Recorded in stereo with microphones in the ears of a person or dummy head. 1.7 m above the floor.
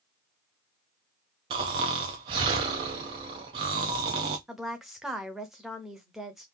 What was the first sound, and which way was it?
Snoring, 20° right (ahead or behind).